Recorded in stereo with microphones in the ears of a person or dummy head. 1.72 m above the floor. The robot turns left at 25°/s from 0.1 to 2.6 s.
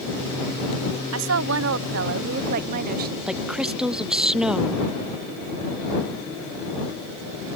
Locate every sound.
1.1 s a woman speaking: 90° right; by 3.2 s 125° right
3.3 s a woman speaking: 5° right (ahead or behind)